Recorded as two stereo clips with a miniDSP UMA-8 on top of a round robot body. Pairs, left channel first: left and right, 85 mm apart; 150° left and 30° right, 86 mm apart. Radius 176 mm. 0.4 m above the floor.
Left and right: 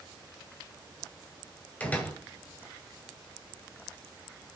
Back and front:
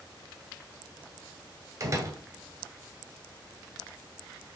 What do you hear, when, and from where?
1.8 s a door slam: 20° left, 2 m